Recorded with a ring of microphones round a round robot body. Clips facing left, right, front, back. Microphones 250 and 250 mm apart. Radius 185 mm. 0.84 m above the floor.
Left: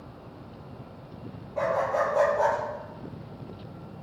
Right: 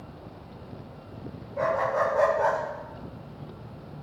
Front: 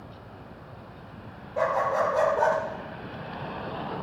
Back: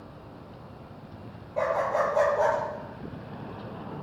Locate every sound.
1.6 s a dog barking: 80° left, 6 m; by 2.6 s 85° left, 6 m